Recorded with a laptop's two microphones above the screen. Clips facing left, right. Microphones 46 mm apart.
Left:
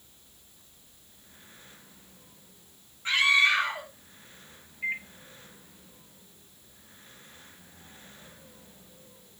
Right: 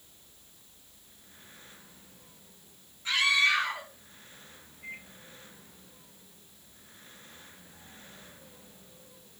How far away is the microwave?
About 1.4 m.